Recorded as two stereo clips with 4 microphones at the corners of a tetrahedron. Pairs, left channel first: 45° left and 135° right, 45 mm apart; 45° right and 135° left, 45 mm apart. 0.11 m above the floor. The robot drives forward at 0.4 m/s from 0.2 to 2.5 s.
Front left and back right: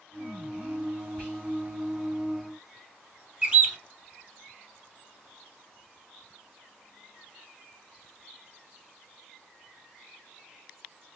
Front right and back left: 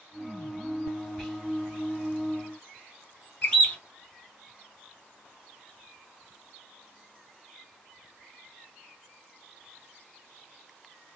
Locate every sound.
1.2 s whispering: 35° left, 1.7 m; by 1.4 s 40° left, 1.7 m
3.4 s a bird: 100° right, 1.1 m